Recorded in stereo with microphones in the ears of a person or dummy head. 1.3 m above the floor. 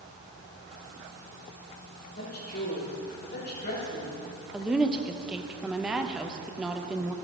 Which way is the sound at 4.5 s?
5° right (ahead or behind).